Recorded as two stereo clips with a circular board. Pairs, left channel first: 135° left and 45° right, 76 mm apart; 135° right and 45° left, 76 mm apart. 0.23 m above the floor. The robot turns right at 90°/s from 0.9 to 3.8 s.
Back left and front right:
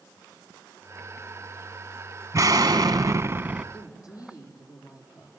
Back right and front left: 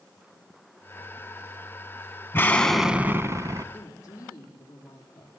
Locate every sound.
2.3 s an explosion: 85° right, 1.0 m; by 3.6 s 35° left, 1.0 m
3.7 s a woman speaking: 170° left, 8.5 m; by 5.3 s straight behind, 8.5 m